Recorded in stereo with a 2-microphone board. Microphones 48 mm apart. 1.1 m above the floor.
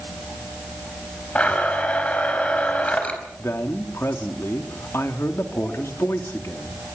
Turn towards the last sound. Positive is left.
turn(degrees=65)  # may be behind; listen again after turning